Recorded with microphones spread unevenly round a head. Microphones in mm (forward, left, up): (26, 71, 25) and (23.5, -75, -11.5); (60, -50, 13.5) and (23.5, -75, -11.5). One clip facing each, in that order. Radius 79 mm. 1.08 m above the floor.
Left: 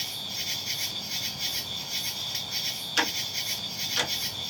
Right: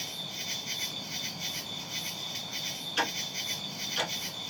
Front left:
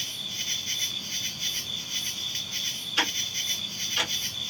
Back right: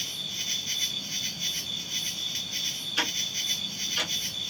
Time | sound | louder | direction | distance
0.0 | an insect | even, front left 1 dB | 85° left | 1.6 m
3.0 | ticking | left 2 dB, front left 2 dB | 130° left | 1.3 m